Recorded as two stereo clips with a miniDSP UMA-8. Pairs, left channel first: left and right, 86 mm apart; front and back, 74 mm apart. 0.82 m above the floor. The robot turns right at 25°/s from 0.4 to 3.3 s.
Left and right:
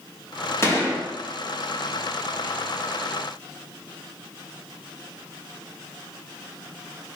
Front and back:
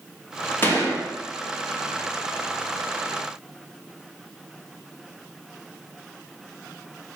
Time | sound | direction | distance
0.6 | a gunshot | 50° left | 1.2 m